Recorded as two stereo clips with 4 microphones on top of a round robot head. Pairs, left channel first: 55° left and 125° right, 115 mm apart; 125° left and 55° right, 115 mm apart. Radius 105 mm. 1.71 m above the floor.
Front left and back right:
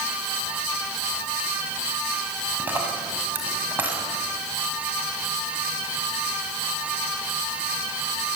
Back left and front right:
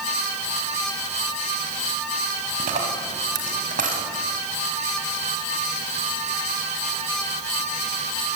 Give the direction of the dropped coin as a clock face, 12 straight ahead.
2 o'clock.